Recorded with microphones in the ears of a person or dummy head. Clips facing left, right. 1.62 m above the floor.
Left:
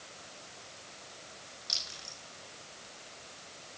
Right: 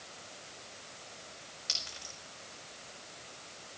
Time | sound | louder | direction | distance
1.7 | a clink | right 1 dB | 50° right (ahead or behind) | 5.5 m